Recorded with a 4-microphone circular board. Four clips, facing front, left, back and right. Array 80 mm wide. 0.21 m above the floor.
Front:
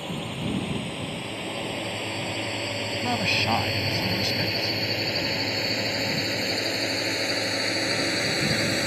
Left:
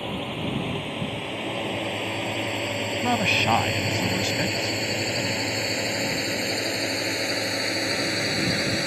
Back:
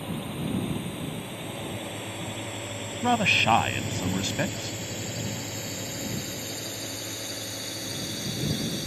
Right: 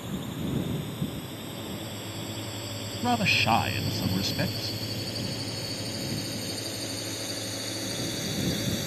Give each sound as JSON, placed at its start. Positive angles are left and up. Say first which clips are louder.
{"t": 0.0, "sound": "a drone", "louder": "left 4 dB, front 1 dB", "azimuth_deg": 75}
{"t": 3.0, "sound": "a man speaking", "louder": "left 1 dB, back 4 dB", "azimuth_deg": 160}